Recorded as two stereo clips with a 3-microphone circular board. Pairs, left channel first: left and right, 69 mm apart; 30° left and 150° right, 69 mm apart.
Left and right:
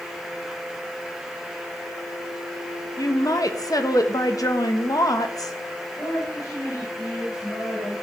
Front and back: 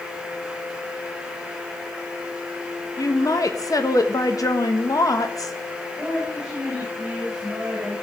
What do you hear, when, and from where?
3.0 s a woman speaking: 60° left, 1.2 m
6.0 s a woman speaking: 125° left, 6 m